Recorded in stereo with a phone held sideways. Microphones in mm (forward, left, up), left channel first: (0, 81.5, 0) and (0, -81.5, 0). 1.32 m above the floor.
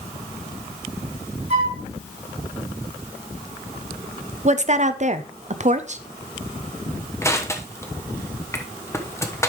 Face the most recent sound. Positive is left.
turn(degrees=15)  # may be behind; listen again after turning